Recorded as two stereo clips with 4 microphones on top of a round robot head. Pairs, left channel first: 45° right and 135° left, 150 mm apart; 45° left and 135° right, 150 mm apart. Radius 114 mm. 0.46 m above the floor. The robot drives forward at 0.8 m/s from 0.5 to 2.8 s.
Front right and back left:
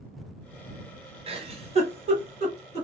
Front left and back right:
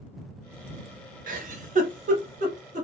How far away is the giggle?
About 1.0 m.